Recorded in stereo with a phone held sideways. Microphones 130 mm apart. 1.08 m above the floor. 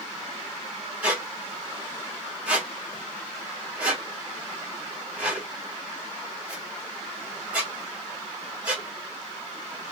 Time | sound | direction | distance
1.0 | a squeak | 10° right (ahead or behind) | 2 m